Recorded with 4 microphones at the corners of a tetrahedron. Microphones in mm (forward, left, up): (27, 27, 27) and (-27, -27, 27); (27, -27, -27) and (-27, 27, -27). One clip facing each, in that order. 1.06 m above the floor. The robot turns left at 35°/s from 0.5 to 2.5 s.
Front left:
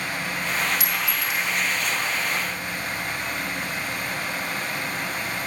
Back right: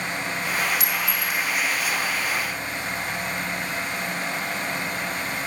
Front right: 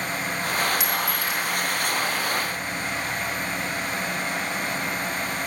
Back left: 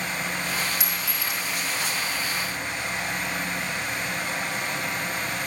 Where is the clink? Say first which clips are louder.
Even, front right 5 dB; 75° right, 2 m; by 1.4 s 95° right, 2 m.